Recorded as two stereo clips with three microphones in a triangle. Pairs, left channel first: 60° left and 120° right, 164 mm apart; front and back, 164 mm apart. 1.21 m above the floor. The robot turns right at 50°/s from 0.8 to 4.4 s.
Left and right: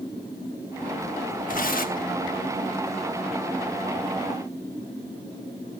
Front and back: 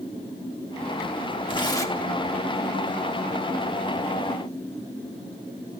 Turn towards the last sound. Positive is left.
turn(degrees=-165)